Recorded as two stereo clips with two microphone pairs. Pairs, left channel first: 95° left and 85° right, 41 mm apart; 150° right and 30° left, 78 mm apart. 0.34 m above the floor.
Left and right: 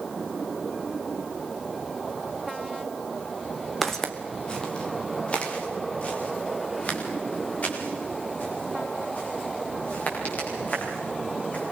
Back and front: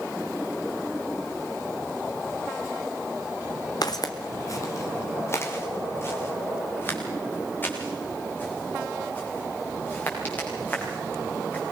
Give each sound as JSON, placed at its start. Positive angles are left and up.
{"t": 3.8, "sound": "footsteps", "azimuth_deg": 180, "distance_m": 1.7}